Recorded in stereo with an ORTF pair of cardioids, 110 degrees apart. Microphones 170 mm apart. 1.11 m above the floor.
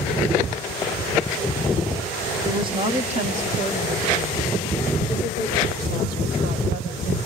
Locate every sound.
2.5 s a woman speaking: 25° right, 1.4 m; by 7.2 s 70° right, 4.5 m